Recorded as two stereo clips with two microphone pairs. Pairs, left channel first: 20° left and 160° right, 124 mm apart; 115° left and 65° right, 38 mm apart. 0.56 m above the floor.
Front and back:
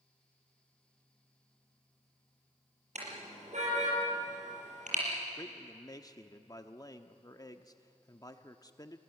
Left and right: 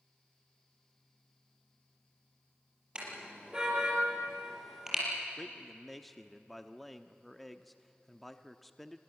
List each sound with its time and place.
3.0 s a car horn: 130° right, 5.5 m; by 5.0 s 145° right, 5.5 m
5.4 s a man speaking: 35° left, 0.8 m